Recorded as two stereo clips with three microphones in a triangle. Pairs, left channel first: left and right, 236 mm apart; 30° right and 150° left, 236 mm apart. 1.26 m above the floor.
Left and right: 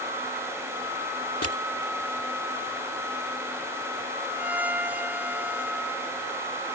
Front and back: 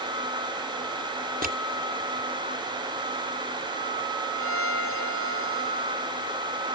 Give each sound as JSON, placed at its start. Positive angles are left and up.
{"t": 1.4, "sound": "crushing", "azimuth_deg": 100}
{"t": 4.4, "sound": "a violin", "azimuth_deg": -5}